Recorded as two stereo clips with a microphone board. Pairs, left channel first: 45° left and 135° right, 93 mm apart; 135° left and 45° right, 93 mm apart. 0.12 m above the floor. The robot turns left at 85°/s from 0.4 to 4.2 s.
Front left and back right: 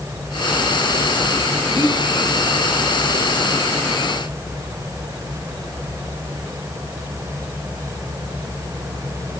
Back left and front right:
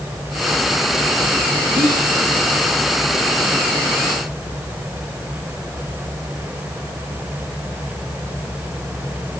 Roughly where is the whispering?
Ahead right.